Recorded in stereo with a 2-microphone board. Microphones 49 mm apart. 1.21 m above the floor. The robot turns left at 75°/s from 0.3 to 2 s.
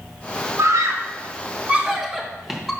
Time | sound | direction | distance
0.6 | a scream | 70° right (ahead or behind) | 1.0 m